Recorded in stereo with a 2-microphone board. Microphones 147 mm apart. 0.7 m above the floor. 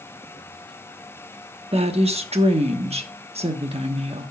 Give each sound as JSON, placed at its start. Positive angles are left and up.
{"t": 1.7, "sound": "a woman speaking", "side_deg": -40, "distance_m": 1.0}